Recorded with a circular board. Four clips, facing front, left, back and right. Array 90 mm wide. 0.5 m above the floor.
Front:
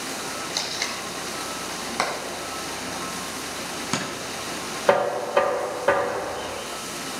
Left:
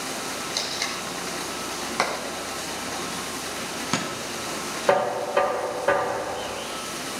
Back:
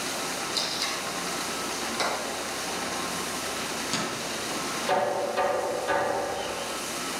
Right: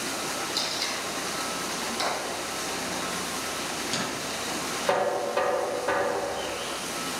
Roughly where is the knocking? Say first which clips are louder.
Left 4 dB, front 6 dB; ahead left.